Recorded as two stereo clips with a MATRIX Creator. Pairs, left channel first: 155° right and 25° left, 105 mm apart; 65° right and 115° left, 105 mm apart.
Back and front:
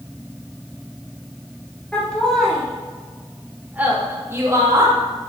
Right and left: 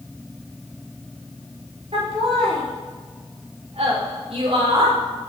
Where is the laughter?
125° left, 4.5 m; by 5.0 s 75° left, 3 m.